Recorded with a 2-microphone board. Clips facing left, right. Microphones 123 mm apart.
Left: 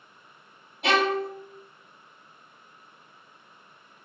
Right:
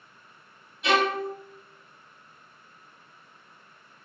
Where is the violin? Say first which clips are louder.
Even; 80° left, 0.9 m.